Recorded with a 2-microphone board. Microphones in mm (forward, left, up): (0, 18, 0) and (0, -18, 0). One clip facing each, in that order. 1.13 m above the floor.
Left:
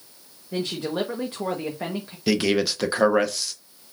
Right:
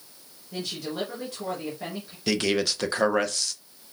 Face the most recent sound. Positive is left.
turn(degrees=5)  # may be behind; listen again after turning